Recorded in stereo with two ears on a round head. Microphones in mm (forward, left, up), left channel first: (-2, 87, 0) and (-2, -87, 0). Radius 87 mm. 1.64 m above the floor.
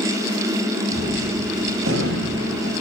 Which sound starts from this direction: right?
A gunshot, at 0.9 s.